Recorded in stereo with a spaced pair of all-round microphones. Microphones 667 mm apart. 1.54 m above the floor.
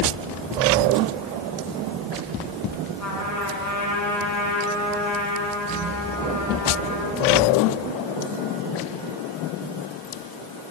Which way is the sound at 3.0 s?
25° left (ahead or behind).